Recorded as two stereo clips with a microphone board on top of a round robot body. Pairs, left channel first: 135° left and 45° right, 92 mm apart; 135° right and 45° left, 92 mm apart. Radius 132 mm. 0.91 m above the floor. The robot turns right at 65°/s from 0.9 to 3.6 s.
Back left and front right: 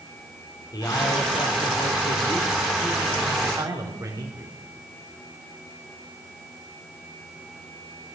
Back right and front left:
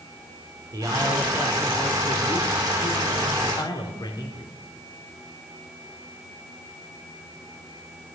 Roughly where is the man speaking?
Left.